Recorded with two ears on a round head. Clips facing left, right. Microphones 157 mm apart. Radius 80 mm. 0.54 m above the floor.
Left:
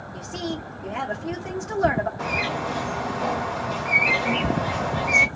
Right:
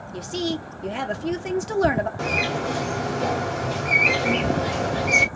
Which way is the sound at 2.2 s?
55° right (ahead or behind).